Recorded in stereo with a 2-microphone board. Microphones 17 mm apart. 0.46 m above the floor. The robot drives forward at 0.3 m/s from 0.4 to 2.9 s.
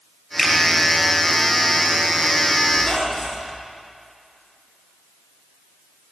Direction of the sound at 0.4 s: 35° left (ahead or behind).